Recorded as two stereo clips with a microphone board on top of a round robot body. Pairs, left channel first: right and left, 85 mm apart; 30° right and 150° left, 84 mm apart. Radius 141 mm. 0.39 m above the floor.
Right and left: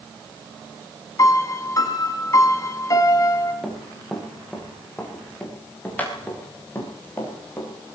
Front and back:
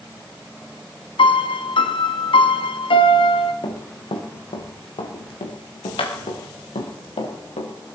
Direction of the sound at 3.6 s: Straight ahead.